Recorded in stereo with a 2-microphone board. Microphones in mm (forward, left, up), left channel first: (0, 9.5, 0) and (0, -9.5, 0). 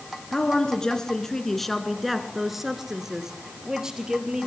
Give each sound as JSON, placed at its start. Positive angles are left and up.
{"t": 0.3, "sound": "a woman speaking", "side_deg": 45, "distance_m": 2.0}